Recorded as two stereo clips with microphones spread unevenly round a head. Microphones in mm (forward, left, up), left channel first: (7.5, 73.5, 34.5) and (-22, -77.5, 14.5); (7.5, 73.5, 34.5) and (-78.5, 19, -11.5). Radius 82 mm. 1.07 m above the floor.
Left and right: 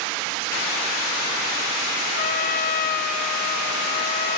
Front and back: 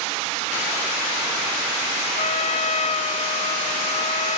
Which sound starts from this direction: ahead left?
A trumpet, at 2.2 s.